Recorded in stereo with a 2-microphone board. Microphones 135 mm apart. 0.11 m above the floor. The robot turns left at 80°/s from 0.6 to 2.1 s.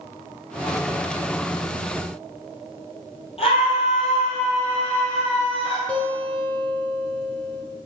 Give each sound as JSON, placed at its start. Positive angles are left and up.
{"t": 3.4, "sound": "a scream", "side_deg": 45, "distance_m": 3.0}
{"t": 5.9, "sound": "a guitar", "side_deg": 10, "distance_m": 1.8}